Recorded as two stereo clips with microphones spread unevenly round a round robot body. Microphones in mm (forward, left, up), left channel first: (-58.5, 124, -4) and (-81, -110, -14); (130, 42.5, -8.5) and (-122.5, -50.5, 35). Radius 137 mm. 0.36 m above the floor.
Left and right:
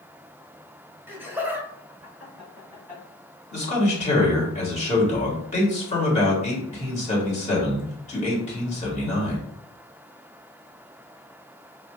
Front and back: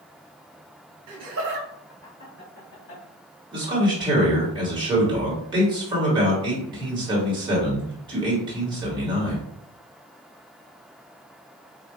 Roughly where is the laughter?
Behind.